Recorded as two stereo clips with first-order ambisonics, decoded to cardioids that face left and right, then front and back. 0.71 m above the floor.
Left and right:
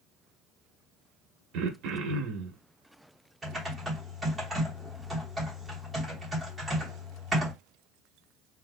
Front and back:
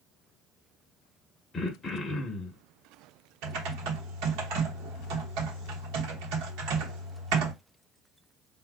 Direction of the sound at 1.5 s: 70° right.